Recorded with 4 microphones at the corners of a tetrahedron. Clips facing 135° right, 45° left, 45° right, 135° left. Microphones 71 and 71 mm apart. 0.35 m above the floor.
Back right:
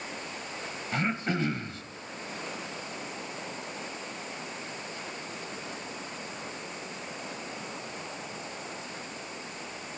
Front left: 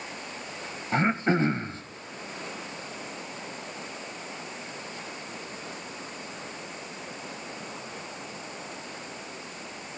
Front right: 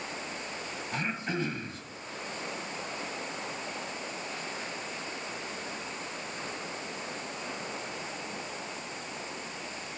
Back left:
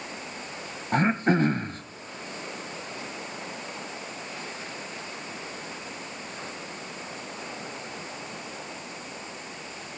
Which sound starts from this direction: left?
Throat clearing, at 0.9 s.